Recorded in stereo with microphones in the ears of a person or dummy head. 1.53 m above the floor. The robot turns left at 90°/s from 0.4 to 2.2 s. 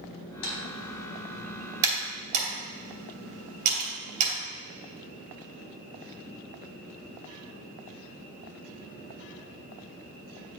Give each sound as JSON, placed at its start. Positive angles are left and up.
{"t": 0.4, "sound": "typing on a keyboard", "side_deg": 70, "distance_m": 2.5}